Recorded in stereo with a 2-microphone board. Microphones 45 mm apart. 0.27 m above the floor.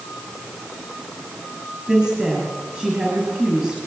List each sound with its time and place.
1.9 s a woman speaking: 20° right (ahead or behind), 6 m